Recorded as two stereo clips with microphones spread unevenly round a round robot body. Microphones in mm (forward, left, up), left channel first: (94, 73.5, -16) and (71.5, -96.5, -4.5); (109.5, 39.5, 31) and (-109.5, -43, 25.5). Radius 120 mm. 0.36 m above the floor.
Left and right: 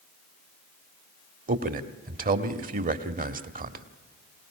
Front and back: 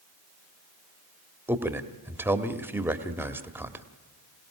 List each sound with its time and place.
1.5 s a man speaking: 80° right, 1.5 m